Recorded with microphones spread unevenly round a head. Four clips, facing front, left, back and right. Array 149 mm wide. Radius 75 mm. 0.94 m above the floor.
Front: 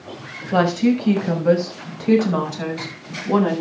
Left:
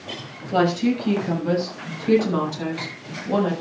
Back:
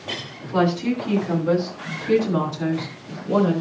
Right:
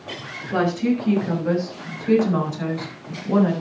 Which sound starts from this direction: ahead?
A woman speaking, at 0.5 s.